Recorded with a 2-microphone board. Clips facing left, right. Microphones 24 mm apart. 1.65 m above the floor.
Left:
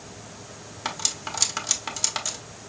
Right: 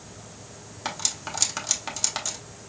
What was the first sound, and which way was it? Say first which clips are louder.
Cutlery clinking: left 1 dB; 10° left (ahead or behind).